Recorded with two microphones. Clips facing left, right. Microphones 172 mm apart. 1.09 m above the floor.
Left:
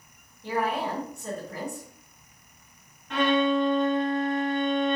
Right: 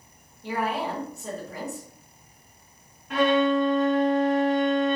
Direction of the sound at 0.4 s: 5° right (ahead or behind).